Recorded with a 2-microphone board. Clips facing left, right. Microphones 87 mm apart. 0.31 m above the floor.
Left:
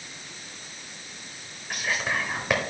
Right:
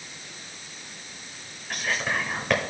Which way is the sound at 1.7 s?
5° left (ahead or behind).